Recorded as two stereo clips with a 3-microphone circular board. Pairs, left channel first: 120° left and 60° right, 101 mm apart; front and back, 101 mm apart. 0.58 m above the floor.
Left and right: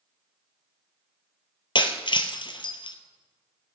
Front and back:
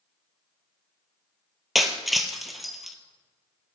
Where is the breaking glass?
90° left, 1.2 m.